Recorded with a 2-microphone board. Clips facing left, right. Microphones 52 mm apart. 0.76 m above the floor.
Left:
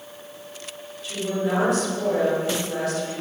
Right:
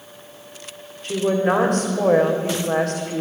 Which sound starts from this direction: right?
A woman speaking, at 1.0 s.